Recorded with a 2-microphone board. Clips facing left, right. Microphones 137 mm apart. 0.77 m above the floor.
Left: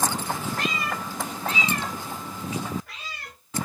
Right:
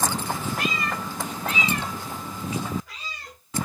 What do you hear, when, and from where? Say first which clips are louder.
0.6 s a cat meowing: right 1 dB; 5° right (ahead or behind), 0.6 m; by 3.4 s 65° left (ahead or behind), 1.5 m